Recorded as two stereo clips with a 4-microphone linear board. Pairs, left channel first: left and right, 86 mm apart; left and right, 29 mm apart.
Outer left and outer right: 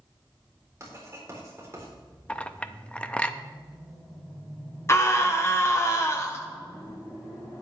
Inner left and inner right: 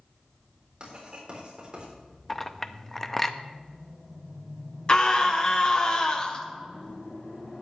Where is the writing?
35° right (ahead or behind), 3.5 m.